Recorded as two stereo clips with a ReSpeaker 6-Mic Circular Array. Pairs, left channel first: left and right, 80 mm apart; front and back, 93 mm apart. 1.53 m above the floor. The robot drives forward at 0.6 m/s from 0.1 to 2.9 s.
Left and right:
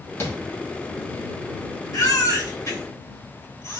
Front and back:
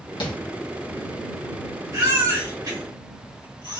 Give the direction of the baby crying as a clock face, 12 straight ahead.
8 o'clock.